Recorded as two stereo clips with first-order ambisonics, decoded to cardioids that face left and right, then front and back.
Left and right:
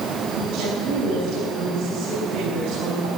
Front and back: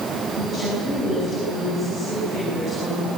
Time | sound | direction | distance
0.4 | a woman speaking | 105° right | 8 m